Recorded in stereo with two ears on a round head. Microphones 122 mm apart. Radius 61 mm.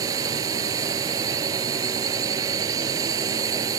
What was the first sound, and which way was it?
A drone, 25° right (ahead or behind).